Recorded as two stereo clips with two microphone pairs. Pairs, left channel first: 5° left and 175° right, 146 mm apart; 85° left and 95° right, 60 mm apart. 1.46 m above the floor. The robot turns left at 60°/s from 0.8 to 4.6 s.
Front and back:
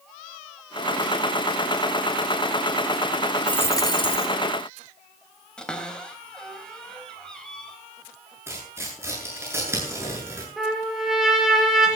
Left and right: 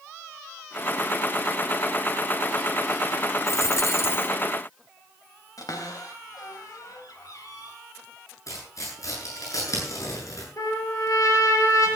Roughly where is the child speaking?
No child speaking in this recording.